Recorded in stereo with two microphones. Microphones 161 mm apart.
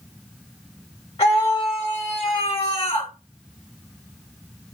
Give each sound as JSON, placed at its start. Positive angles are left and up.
{"t": 1.2, "sound": "a scream", "side_deg": 40, "distance_m": 2.5}